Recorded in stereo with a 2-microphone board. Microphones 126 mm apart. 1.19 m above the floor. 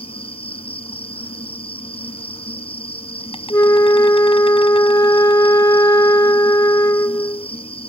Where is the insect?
45° left (ahead or behind).